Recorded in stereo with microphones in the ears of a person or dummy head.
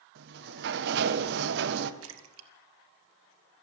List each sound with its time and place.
0.1 s a sliding door: 70° right (ahead or behind), 1.4 m
2.0 s a splash: 85° right, 2 m